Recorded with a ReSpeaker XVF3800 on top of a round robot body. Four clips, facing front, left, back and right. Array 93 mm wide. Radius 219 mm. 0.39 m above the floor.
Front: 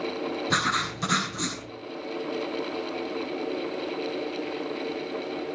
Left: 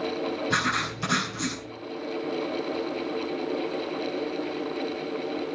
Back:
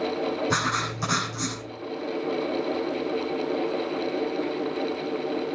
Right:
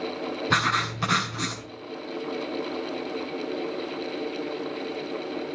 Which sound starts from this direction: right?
Writing, at 0.5 s.